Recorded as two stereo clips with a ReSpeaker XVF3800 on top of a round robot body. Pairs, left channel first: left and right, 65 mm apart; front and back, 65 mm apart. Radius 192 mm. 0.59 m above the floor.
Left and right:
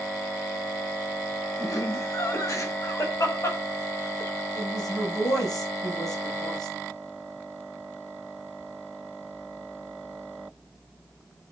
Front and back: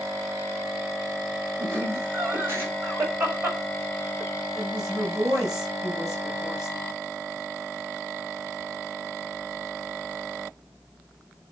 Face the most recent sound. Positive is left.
turn(degrees=105)